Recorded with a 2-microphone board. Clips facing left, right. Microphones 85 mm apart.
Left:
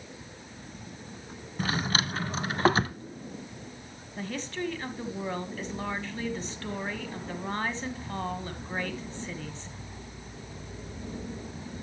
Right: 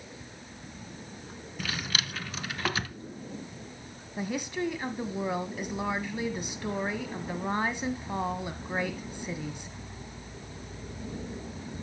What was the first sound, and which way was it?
A drawer, 35° left (ahead or behind).